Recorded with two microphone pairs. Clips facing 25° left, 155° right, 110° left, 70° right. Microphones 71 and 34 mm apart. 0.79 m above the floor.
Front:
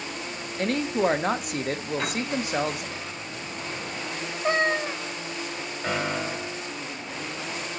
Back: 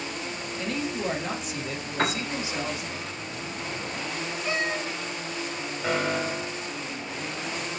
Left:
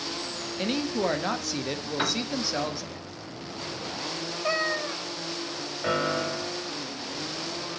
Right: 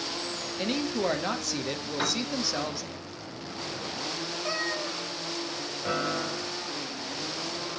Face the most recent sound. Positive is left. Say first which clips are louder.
# back 2 dB, left 3 dB
turn(degrees=110)